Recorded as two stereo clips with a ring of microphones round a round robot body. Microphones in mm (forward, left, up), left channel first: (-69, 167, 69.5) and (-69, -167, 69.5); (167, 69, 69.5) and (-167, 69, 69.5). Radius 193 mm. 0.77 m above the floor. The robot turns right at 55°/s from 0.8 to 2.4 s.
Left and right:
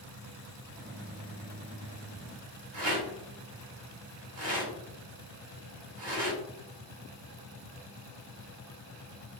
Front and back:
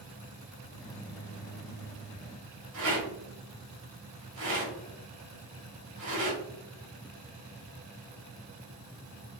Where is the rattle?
130° right, 2.5 m.